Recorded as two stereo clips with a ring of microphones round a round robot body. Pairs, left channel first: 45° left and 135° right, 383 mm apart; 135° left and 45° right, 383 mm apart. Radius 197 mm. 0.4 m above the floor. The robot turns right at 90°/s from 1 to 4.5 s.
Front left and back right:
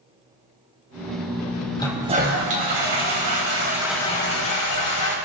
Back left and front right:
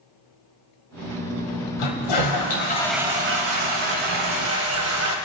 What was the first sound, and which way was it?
A toilet flushing, 120° left.